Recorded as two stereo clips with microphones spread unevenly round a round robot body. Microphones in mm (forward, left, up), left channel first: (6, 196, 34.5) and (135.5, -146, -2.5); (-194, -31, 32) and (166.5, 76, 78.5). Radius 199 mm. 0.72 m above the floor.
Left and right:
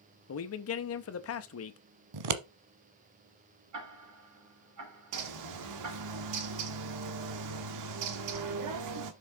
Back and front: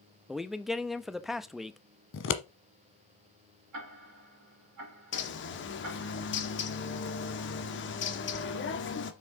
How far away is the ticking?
About 4.5 m.